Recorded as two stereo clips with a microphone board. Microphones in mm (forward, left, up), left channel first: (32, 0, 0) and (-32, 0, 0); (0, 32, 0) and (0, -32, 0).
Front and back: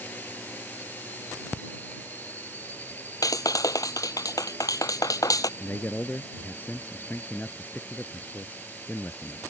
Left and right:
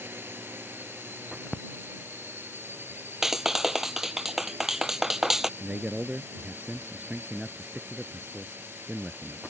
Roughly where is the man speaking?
Ahead right.